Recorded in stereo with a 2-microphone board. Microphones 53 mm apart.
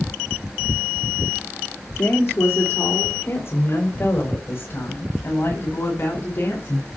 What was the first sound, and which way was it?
A woman speaking, 55° left (ahead or behind).